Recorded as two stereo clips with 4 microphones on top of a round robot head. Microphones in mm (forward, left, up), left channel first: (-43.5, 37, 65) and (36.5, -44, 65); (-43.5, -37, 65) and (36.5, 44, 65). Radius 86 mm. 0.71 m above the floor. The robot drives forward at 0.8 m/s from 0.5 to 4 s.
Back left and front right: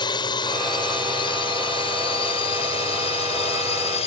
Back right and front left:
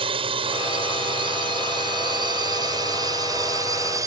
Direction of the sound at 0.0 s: 85° left.